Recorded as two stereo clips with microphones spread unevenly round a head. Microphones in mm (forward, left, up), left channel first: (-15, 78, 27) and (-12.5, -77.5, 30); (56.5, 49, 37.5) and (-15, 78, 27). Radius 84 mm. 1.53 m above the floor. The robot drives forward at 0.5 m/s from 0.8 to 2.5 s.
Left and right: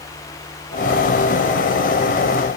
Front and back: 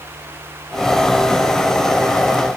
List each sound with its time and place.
Only background noise.